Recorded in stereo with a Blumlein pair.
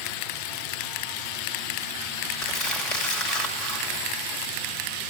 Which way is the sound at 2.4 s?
30° left.